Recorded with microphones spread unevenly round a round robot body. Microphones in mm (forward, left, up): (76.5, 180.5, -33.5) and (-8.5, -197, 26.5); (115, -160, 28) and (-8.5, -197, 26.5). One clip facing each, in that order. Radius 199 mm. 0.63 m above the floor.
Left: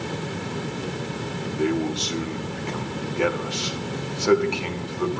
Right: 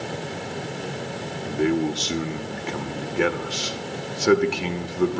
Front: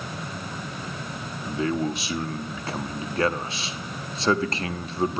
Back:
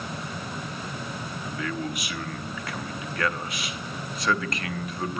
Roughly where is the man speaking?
Ahead right.